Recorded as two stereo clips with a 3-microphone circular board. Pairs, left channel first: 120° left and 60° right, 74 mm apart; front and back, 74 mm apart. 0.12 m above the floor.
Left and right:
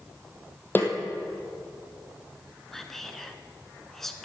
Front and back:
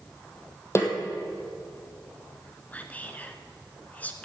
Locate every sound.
0.8 s a snare drum: 55° left, 2 m
2.7 s whispering: 40° left, 1.1 m